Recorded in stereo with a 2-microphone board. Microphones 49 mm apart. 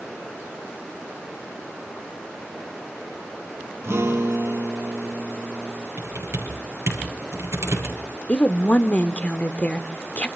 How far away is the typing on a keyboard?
About 7 m.